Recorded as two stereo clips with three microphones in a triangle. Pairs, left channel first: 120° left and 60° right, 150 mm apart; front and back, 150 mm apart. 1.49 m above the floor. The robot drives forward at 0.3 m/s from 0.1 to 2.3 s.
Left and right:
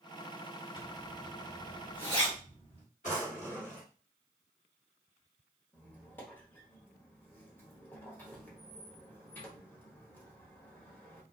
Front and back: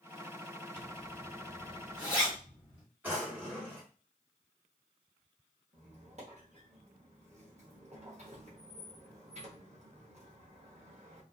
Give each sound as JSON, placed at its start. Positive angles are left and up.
{"t": 0.8, "sound": "a zipper", "azimuth_deg": 80, "distance_m": 1.7}
{"t": 3.0, "sound": "a drawer", "azimuth_deg": 105, "distance_m": 1.5}
{"t": 5.7, "sound": "a squeak", "azimuth_deg": -165, "distance_m": 0.8}